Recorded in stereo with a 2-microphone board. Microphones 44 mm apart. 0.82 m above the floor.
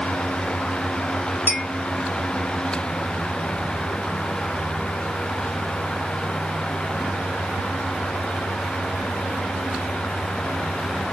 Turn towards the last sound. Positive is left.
turn(degrees=70)  # may be behind; listen again after turning